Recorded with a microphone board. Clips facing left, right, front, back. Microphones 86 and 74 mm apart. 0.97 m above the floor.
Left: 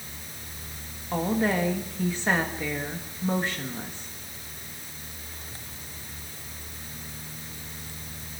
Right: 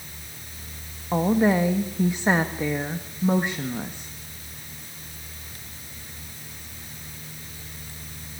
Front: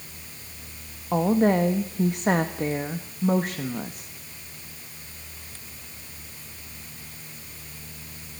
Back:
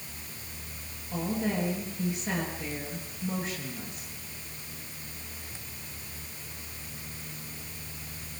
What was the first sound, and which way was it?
A woman speaking, 20° right.